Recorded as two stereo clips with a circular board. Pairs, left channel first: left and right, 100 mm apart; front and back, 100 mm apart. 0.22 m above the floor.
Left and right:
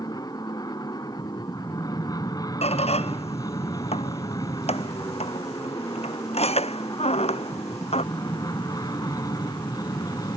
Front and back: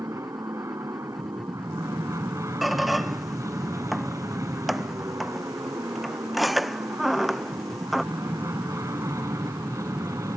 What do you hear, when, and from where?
0.0 s an aircraft: 130° left
2.6 s a squeak: 90° left